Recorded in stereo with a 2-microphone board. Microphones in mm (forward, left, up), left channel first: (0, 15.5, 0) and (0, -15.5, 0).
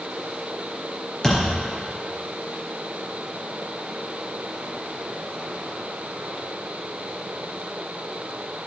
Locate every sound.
1.2 s a thud: 10° left (ahead or behind), 2.5 m